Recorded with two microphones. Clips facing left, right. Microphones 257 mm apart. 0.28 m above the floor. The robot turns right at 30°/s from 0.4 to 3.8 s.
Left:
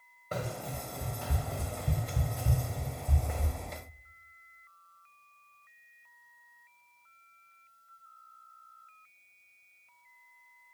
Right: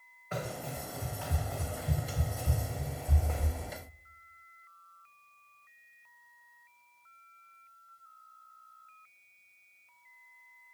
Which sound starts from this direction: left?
Running footsteps, at 0.3 s.